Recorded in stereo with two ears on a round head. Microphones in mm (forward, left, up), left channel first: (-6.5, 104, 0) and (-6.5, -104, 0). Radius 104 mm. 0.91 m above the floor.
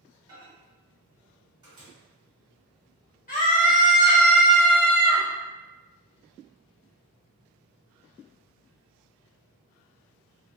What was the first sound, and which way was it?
A microwave, 20° right (ahead or behind).